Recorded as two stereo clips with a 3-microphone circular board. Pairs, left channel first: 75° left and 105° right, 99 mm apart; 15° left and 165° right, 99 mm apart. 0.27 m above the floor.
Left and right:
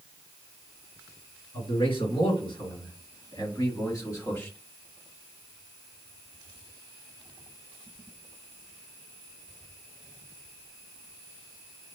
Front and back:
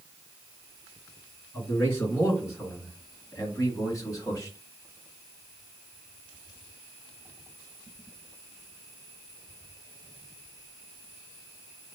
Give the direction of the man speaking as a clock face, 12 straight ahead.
9 o'clock.